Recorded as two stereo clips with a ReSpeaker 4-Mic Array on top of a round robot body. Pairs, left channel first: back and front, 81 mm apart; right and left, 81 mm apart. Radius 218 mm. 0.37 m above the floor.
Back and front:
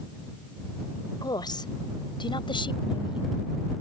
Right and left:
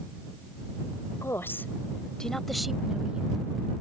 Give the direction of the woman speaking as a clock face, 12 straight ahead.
5 o'clock.